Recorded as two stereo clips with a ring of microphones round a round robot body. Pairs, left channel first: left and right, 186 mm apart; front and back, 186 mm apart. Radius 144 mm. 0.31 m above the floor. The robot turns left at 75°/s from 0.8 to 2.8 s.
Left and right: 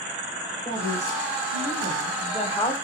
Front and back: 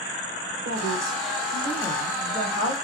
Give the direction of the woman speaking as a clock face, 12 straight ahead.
7 o'clock.